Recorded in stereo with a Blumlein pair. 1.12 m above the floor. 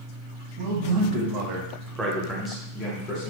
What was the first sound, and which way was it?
A man speaking, 60° right.